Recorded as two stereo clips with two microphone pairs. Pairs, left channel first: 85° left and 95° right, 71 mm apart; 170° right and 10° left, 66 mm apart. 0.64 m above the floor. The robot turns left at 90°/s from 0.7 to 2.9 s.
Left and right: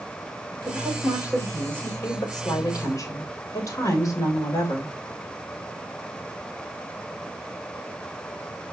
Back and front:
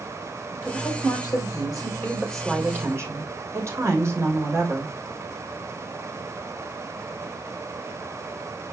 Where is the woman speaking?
110° right, 3 m; by 4.9 s 50° left, 3 m.